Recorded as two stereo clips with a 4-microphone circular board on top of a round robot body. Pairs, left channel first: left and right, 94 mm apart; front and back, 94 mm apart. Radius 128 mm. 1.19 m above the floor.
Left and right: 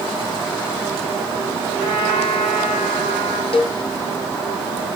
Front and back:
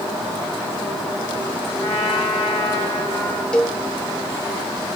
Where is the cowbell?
80° left, 1.2 m.